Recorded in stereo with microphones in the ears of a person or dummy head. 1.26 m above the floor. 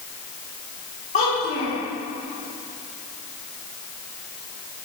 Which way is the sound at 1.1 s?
45° left (ahead or behind).